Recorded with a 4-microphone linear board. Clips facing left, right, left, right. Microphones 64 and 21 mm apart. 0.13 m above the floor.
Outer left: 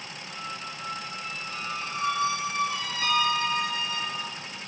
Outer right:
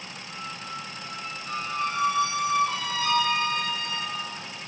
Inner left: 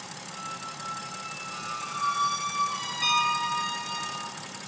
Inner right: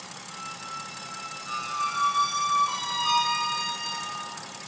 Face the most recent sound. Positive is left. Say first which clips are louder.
# even, even
turn(degrees=65)  # may be behind; listen again after turning